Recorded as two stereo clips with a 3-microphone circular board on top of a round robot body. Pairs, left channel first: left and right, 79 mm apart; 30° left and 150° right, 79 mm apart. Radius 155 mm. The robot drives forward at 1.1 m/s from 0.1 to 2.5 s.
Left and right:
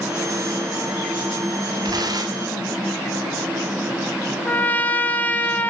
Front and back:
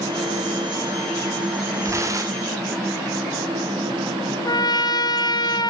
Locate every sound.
1.8 s tearing paper: 105° right, 3 m; by 2.5 s 120° right, 3 m
4.5 s a trumpet: 25° left, 1.6 m